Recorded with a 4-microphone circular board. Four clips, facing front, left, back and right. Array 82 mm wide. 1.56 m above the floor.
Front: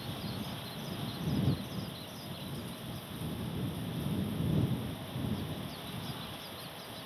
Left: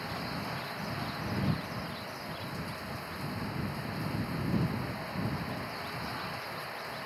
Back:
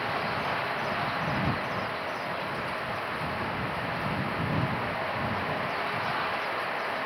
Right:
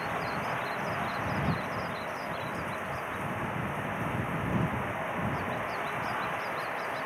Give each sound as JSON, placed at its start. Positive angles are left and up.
{"t": 0.0, "sound": "running water", "azimuth_deg": -155}